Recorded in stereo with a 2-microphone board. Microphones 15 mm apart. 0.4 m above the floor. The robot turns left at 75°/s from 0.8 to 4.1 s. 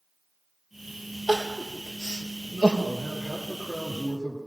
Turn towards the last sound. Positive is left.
turn(degrees=95)